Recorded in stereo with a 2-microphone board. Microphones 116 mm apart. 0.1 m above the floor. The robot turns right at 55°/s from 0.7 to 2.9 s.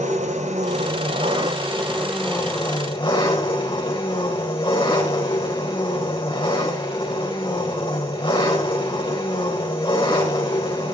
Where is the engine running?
80° right, 5 m; by 10.9 s 45° left, 5 m.